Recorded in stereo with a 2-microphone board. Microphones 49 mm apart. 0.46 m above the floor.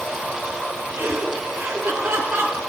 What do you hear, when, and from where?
1.0 s laughter: 40° right (ahead or behind), 5.5 m; by 2.6 s 35° right (ahead or behind), 7 m